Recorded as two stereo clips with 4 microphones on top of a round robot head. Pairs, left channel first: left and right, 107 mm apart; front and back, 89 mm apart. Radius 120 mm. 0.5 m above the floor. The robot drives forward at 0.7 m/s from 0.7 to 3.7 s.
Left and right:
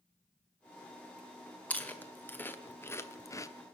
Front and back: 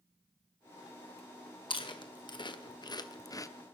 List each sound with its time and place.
1.7 s chewing: 15° left, 2 m; by 3.5 s 40° left, 1.1 m